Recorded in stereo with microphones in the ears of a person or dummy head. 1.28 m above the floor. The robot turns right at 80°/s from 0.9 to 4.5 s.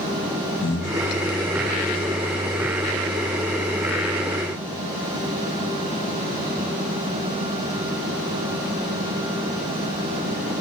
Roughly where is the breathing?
Left.